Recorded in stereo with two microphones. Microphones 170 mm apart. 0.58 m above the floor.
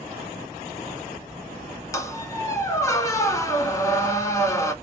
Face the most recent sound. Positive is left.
turn(degrees=20)  # may be behind; listen again after turning